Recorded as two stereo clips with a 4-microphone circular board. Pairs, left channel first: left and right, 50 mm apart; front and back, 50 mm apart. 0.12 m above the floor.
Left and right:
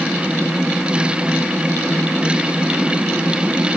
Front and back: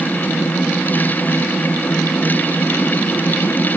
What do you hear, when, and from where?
Only background noise.